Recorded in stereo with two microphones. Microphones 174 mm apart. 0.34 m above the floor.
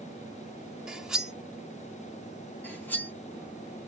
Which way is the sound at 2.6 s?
10° left (ahead or behind).